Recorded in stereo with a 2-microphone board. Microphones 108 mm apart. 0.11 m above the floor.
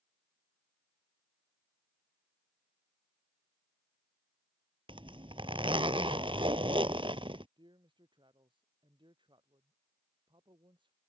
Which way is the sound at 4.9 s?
60° right (ahead or behind).